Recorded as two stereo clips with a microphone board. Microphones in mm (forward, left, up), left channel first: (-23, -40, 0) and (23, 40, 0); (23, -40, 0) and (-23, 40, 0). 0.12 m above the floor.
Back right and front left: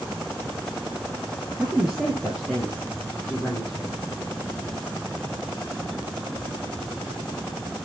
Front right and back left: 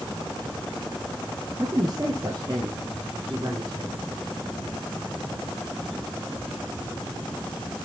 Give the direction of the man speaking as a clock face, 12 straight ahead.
8 o'clock.